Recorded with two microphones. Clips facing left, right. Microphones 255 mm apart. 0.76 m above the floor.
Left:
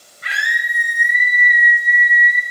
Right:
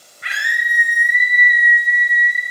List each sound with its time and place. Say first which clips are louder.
0.2 s a scream: left 1 dB; 40° left (ahead or behind), 4 m; by 2.4 s 60° left (ahead or behind), 3.5 m